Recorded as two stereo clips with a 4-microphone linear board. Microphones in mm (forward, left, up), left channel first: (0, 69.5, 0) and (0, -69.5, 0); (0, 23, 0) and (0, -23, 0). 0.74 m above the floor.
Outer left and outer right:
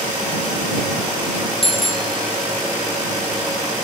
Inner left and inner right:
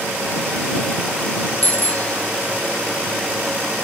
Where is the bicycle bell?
40° left (ahead or behind).